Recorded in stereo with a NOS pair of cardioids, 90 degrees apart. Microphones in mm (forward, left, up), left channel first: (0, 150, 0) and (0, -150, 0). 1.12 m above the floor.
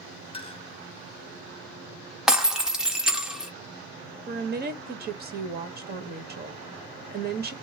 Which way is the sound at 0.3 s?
20° left.